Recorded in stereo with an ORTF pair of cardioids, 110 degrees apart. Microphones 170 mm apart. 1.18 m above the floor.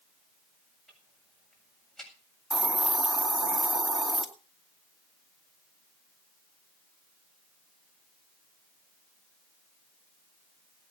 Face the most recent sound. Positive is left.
turn(degrees=-5)